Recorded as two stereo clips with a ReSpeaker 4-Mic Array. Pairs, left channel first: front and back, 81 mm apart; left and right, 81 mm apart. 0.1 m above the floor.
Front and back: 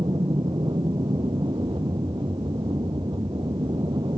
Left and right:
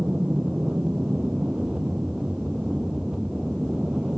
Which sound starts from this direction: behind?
An aircraft, at 0.0 s.